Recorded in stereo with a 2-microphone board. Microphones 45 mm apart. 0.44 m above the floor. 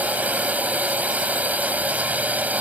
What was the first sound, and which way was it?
A drone, 40° right (ahead or behind).